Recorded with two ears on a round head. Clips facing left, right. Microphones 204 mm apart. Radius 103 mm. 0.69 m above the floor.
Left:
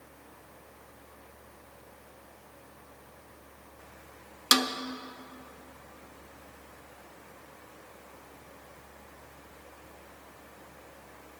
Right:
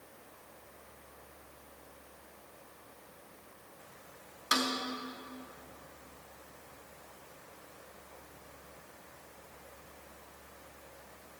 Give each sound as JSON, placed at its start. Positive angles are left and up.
{"t": 4.5, "sound": "a snare drum", "side_deg": 55, "distance_m": 0.6}